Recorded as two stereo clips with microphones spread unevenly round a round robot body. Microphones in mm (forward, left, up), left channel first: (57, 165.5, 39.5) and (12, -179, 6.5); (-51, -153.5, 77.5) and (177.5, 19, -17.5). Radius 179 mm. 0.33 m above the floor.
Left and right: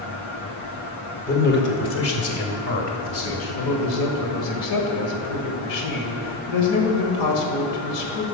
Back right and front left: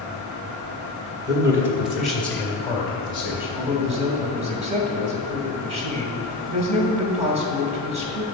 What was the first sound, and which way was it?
A man speaking, 30° left.